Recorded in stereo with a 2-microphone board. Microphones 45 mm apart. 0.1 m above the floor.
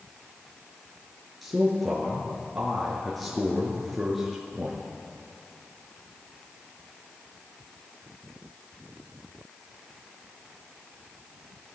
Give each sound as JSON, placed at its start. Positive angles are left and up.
{"t": 1.4, "sound": "a man speaking", "side_deg": 0, "distance_m": 1.4}